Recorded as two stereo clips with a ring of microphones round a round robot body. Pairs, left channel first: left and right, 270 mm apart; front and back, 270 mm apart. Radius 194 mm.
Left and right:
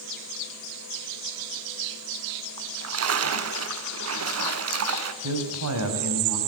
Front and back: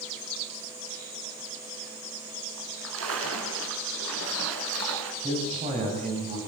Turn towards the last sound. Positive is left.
turn(degrees=-105)